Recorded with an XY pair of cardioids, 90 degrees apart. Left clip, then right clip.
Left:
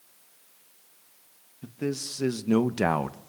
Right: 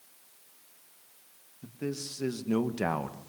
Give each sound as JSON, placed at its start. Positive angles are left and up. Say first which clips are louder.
{"t": 1.6, "sound": "a man speaking", "louder": "left 5 dB", "azimuth_deg": 40, "distance_m": 2.5}